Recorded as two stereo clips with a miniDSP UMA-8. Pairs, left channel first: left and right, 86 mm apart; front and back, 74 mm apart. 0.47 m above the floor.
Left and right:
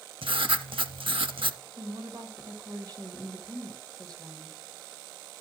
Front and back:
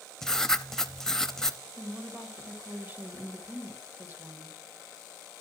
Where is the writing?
85° right, 0.7 m.